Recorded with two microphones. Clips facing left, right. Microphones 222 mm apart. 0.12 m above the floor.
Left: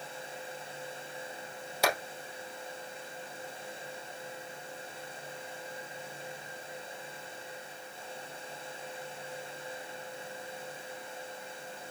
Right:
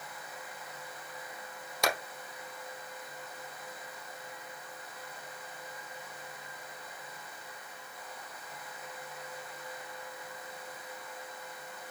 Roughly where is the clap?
Centre.